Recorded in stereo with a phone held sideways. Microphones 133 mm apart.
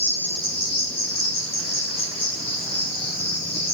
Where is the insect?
40° left (ahead or behind), 0.9 m.